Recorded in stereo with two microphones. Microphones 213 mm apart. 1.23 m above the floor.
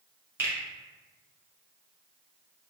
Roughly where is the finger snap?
Centre.